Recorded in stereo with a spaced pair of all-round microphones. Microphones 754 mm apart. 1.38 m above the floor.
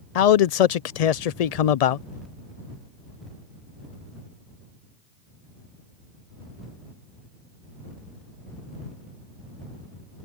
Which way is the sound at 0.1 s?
60° left (ahead or behind).